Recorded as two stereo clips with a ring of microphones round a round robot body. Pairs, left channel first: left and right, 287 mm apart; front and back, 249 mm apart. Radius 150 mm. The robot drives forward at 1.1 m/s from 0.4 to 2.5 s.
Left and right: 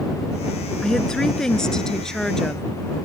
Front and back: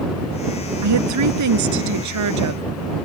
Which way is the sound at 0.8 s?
Straight behind.